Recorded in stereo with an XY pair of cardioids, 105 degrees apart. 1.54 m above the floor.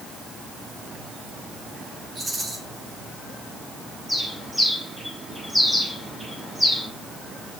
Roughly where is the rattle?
Ahead right.